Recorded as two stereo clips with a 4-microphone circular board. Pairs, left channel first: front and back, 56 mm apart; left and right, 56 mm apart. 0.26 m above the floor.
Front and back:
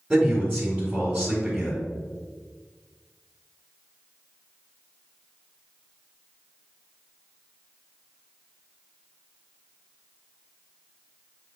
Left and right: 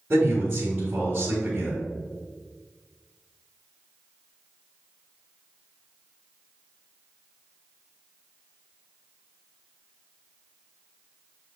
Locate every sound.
0.1 s a man speaking: 120° right, 1.5 m